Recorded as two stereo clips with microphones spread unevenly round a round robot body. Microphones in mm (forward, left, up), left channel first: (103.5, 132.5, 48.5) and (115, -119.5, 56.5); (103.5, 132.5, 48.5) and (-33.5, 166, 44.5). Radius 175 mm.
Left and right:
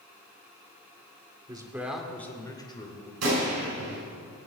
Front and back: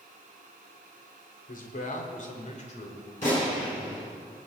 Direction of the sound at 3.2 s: 75° right.